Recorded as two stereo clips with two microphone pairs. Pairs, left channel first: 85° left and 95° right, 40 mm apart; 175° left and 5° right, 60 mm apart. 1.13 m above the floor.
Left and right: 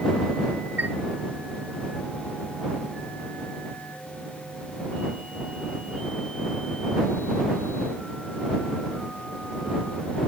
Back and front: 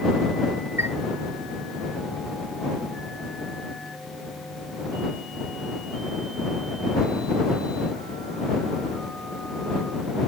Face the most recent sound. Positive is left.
turn(degrees=-55)